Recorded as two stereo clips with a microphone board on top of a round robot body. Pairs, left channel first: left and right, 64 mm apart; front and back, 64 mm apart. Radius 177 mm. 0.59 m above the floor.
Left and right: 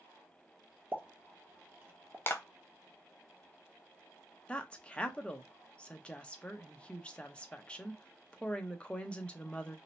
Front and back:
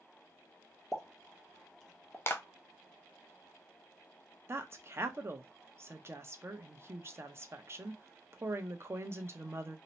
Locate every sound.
0.9 s a pop: 85° right, 1.0 m
2.3 s a clap: 45° left, 0.7 m
4.5 s a woman speaking: 155° left, 0.8 m